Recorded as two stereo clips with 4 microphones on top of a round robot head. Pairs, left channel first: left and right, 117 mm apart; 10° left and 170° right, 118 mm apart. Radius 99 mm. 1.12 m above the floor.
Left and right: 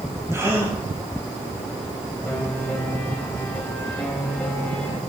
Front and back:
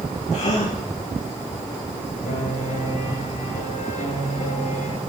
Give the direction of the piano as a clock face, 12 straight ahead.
12 o'clock.